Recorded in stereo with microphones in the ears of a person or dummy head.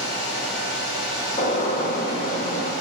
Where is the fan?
60° left (ahead or behind), 4 m.